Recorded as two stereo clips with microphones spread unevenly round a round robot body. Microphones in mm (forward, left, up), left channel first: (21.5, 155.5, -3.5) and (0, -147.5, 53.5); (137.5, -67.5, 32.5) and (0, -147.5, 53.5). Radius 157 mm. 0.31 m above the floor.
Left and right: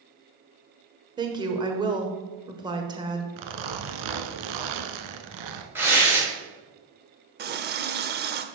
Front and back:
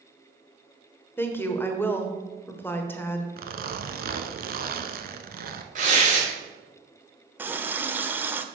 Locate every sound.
1.2 s a woman speaking: 15° right, 1.1 m
3.4 s a zipper: 125° right, 0.8 m
5.8 s tearing paper: 175° left, 2 m
7.4 s a running tap: 70° right, 0.8 m